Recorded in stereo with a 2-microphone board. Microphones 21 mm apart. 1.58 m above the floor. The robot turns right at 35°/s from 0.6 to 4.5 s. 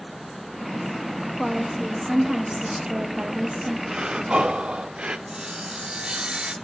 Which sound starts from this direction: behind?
A woman speaking, at 1.4 s.